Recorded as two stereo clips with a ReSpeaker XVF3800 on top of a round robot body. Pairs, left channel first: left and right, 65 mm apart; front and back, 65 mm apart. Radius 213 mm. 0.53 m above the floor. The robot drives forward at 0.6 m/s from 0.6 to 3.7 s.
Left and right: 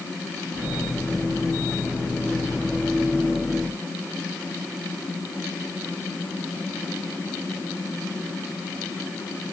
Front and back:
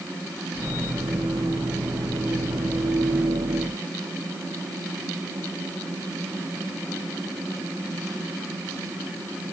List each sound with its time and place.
Only background noise.